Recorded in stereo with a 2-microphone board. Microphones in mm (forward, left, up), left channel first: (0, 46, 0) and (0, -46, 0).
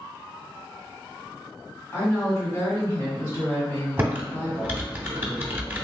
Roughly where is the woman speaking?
Left.